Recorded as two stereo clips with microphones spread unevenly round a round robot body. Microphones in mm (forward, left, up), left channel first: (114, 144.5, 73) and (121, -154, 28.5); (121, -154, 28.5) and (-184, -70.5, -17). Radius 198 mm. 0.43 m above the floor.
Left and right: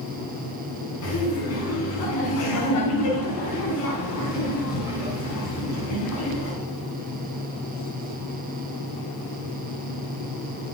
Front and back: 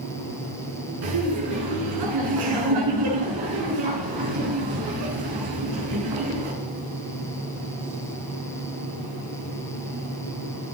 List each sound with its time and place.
1.0 s laughter: 145° left, 5.5 m